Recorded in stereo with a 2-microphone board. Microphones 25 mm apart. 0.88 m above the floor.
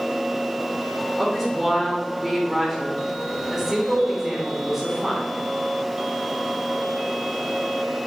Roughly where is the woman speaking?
Centre.